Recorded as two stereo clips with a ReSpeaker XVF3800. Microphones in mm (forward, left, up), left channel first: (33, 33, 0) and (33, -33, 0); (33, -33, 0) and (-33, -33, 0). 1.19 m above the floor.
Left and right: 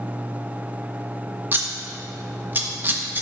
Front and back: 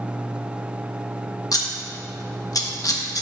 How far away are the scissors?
About 0.9 m.